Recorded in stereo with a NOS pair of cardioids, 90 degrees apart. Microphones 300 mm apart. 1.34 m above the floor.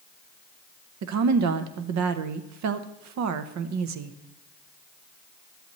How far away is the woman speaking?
About 1.0 m.